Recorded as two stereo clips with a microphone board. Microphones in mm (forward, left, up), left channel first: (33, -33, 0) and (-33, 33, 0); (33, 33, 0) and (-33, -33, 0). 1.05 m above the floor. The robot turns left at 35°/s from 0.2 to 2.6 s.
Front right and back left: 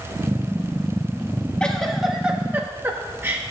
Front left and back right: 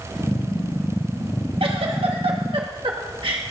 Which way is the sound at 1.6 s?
125° right.